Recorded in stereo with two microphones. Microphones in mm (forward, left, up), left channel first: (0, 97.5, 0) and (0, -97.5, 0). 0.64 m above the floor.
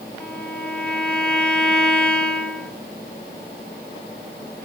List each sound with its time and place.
0.2 s a violin: 5° left (ahead or behind), 1.6 m